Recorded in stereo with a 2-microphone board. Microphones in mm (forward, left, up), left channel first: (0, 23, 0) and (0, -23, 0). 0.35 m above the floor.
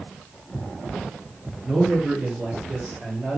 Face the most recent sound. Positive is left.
turn(degrees=-20)  # may be behind; listen again after turning